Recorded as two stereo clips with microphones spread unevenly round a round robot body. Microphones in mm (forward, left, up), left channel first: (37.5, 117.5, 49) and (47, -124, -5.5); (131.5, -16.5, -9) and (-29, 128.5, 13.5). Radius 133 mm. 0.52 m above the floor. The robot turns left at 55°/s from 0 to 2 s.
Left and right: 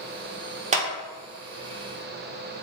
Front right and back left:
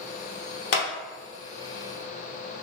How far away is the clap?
About 0.8 m.